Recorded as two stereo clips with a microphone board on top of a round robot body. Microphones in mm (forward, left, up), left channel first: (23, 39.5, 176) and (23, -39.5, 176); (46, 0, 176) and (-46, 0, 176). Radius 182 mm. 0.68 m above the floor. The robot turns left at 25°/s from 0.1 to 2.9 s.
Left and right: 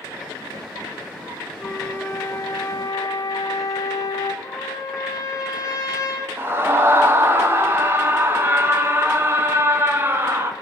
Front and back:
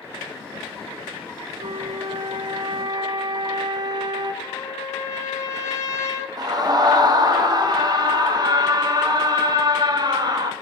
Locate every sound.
1.6 s a flute: 165° left, 0.6 m; by 4.3 s 135° left, 0.6 m
4.4 s a trumpet: 55° left, 2.5 m
6.4 s a scream: 145° right, 1.6 m